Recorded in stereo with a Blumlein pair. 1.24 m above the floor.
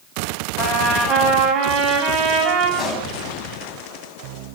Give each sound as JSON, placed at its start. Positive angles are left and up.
{"t": 0.6, "sound": "a trumpet", "azimuth_deg": -30, "distance_m": 5.0}
{"t": 2.8, "sound": "a pop", "azimuth_deg": 25, "distance_m": 6.0}